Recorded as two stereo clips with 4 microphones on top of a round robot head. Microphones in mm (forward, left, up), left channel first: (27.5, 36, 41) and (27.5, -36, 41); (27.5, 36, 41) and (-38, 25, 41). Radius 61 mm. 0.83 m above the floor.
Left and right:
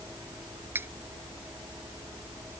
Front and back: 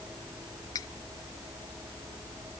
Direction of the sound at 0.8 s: 30° right.